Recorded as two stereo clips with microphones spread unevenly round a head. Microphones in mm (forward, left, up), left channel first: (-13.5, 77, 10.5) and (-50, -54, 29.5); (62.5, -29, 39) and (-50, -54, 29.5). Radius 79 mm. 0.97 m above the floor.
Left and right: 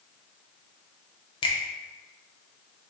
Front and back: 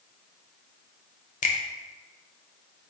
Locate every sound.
1.4 s a finger snap: 25° left, 0.6 m